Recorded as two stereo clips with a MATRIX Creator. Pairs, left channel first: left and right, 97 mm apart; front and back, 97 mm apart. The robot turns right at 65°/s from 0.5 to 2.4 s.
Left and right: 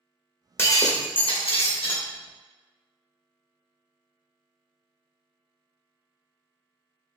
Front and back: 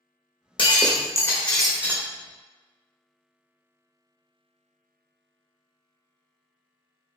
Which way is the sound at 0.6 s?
25° left.